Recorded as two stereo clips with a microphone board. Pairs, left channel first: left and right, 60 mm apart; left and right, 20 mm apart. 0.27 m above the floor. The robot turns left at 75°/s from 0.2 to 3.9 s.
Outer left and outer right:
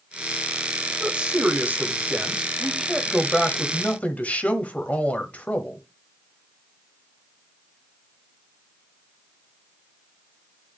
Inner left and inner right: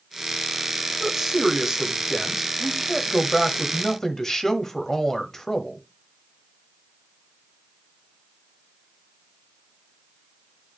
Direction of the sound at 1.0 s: 15° right (ahead or behind).